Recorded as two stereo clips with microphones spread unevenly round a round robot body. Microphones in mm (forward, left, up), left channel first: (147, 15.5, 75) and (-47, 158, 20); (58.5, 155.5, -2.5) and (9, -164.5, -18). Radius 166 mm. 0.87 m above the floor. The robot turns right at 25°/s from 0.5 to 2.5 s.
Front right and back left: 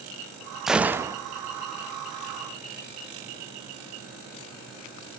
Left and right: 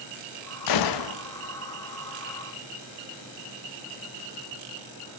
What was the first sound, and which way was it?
A gunshot, 60° left.